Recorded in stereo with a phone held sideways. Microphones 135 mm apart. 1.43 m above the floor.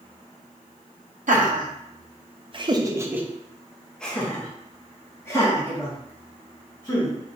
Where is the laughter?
75° right (ahead or behind), 0.8 m; by 7.2 s 25° left (ahead or behind), 2.5 m.